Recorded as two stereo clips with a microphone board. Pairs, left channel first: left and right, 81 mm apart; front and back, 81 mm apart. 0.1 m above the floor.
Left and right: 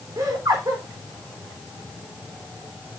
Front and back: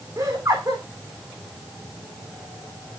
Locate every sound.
0.2 s laughter: 135° right, 5 m